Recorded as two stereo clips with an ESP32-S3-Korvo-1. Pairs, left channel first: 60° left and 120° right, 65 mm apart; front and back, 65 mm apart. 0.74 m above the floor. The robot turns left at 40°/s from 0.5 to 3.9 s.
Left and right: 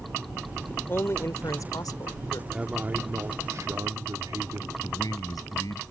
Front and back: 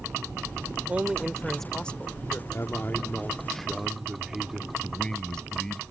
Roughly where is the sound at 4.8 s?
Left.